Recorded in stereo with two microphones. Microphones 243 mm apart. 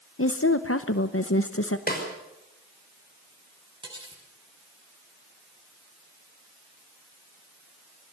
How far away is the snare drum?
About 5 m.